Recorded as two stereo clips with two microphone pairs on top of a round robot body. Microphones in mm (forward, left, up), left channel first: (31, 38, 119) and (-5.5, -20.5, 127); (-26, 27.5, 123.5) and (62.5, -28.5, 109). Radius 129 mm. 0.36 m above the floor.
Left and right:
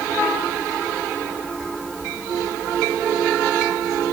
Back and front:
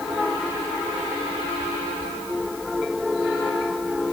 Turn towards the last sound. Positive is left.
No sound to turn to.